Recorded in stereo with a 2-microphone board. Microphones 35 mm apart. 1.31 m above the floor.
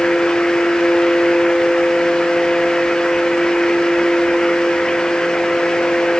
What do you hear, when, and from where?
Only background noise.